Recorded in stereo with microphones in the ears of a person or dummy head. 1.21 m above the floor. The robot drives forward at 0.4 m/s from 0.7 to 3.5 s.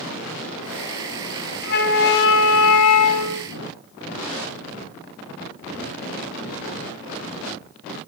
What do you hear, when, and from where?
1.6 s a flute: 50° left (ahead or behind), 1.0 m; by 3.5 s 80° left, 0.8 m